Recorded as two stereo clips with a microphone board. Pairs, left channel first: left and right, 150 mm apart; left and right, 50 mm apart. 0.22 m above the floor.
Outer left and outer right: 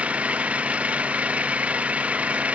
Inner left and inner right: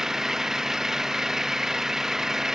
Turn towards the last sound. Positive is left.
turn(degrees=-10)  # may be behind; listen again after turning